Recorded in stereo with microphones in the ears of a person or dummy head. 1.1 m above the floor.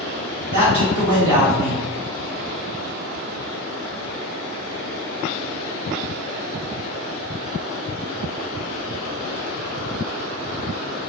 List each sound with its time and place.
0.5 s a man speaking: 40° right (ahead or behind), 1.4 m